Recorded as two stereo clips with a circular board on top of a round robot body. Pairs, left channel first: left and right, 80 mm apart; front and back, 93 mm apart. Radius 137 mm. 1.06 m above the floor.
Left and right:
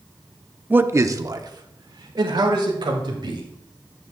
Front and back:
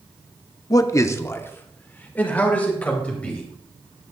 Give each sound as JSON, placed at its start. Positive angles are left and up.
{"t": 0.7, "sound": "a man speaking", "azimuth_deg": -30, "distance_m": 0.7}